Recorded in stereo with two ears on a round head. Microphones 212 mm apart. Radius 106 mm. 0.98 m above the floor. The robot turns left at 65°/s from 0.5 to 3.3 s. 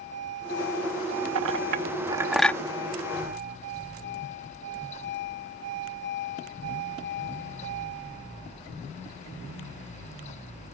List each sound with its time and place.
1.4 s a clink: 65° right (ahead or behind); by 2.6 s 15° left (ahead or behind)